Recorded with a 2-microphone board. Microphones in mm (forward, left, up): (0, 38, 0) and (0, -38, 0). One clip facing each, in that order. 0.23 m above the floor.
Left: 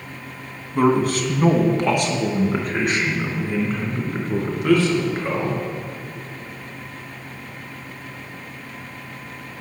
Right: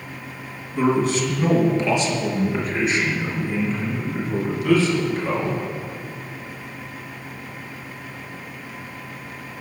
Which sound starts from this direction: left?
A man speaking, at 0.8 s.